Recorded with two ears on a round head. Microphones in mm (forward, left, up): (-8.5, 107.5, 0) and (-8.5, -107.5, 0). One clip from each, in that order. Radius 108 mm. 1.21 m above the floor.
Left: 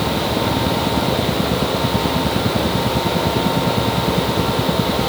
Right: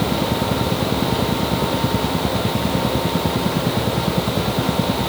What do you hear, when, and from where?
Only background noise.